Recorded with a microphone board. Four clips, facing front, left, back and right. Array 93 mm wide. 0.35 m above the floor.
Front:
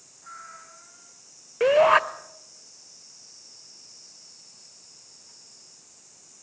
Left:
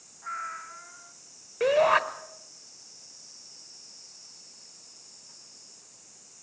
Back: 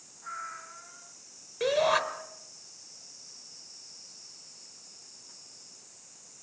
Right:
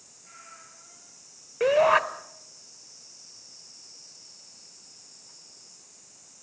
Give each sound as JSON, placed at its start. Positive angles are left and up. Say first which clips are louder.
{"t": 0.2, "sound": "a cat meowing", "louder": "left 15 dB, back 4 dB", "azimuth_deg": 105, "distance_m": 1.8}
{"t": 1.6, "sound": "a shout", "louder": "right 2 dB, front 8 dB", "azimuth_deg": -5, "distance_m": 1.2}